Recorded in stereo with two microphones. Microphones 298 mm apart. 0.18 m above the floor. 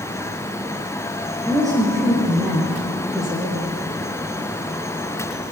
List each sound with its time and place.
1.4 s a woman speaking: 10° right (ahead or behind), 7 m; by 3.6 s centre (ahead or behind), 5.5 m